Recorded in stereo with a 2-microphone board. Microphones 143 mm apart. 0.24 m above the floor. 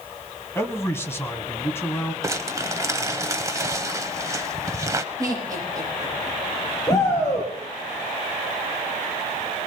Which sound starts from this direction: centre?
A man speaking, at 0.6 s.